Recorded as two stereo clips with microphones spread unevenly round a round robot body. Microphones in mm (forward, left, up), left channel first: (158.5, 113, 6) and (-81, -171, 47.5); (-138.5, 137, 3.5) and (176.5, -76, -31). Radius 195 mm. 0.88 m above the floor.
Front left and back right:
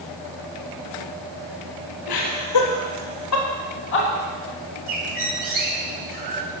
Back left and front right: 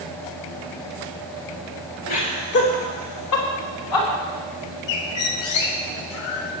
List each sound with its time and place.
2.1 s laughter: 85° left, 4.5 m; by 4.1 s 110° left, 4.5 m
4.9 s a bird: 160° left, 1.8 m